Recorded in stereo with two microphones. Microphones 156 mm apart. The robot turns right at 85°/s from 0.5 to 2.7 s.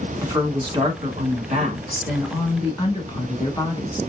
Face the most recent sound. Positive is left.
turn(degrees=35)